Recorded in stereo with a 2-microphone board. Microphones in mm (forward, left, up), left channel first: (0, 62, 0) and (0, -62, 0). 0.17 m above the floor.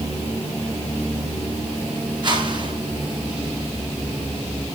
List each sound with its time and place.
2.2 s a whoosh: 35° right (ahead or behind), 3 m